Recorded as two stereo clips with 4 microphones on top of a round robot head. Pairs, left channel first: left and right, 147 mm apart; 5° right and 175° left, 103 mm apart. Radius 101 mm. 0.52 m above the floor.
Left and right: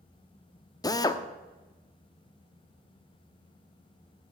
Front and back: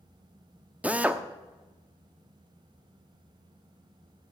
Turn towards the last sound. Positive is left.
turn(degrees=115)